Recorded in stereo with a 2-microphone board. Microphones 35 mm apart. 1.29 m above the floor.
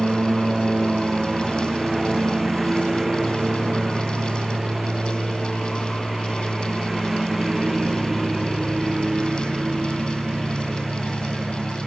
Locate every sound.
0.0 s a lawn mower: 5° right (ahead or behind)